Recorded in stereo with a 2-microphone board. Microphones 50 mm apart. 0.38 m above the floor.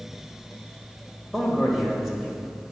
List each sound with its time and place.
1.3 s a man speaking: 5° left (ahead or behind), 1.9 m